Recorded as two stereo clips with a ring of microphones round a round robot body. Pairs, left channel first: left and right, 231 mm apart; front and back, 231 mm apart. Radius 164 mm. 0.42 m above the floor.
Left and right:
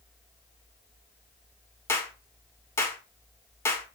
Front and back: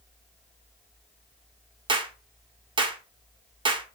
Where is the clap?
150° left, 1.0 m.